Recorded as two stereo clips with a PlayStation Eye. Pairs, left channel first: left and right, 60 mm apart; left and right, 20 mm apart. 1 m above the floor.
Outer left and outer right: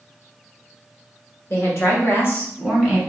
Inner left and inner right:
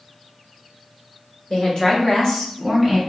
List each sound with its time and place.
1.5 s a woman speaking: 40° left (ahead or behind), 1.5 m; by 3.0 s 10° left (ahead or behind), 1.3 m